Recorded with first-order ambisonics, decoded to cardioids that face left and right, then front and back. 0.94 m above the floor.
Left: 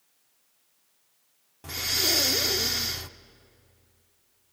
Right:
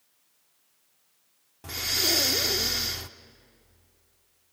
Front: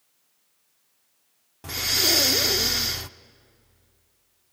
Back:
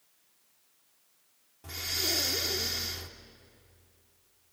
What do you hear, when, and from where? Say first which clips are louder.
1.6 s breathing: even, front 9 dB; straight ahead, 0.5 m